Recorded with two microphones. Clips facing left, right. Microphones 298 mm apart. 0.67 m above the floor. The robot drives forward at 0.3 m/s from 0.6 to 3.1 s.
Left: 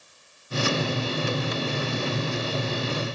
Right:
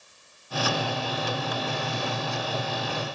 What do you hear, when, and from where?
Only background noise.